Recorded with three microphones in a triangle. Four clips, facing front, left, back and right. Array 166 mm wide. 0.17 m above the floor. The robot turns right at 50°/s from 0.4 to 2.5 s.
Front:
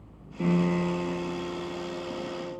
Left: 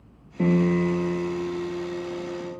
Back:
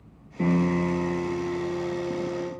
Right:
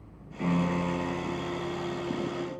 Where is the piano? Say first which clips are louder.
Left 7 dB, back 2 dB; 110° left, 2.5 m; by 2.5 s 145° right, 2.5 m.